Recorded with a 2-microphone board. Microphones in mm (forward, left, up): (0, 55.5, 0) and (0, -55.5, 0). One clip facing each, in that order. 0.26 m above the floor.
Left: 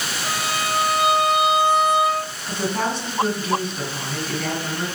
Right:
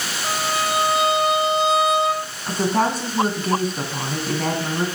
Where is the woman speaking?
45° right (ahead or behind), 2 m.